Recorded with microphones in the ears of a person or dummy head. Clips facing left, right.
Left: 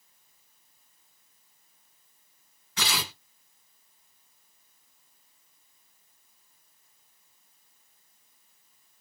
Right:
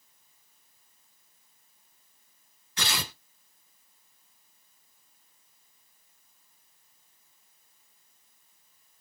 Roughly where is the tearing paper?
Left.